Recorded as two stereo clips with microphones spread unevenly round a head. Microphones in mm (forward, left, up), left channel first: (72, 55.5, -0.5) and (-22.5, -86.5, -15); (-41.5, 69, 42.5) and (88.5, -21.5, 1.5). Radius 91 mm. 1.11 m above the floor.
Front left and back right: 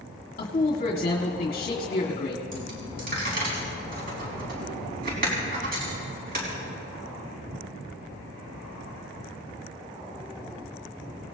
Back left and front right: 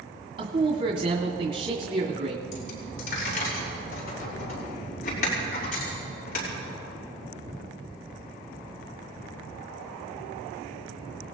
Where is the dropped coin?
170° right, 4.5 m.